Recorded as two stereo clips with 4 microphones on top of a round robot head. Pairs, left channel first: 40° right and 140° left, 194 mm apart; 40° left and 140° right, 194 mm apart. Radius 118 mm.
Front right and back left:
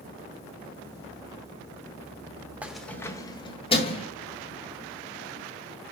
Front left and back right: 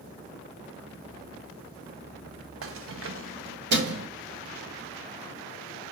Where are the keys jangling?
140° right, 1.0 m; by 4.1 s 100° right, 2 m.